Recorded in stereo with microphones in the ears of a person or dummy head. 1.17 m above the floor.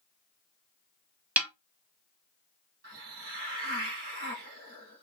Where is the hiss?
40° right (ahead or behind), 4 m.